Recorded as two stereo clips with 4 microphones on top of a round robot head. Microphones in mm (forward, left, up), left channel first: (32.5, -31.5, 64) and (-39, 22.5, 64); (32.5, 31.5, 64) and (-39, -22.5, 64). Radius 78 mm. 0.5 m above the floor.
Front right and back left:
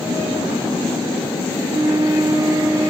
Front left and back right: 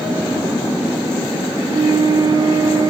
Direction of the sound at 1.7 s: 175° right.